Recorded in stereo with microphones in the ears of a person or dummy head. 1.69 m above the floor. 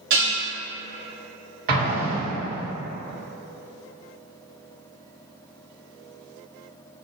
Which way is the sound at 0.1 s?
65° right (ahead or behind).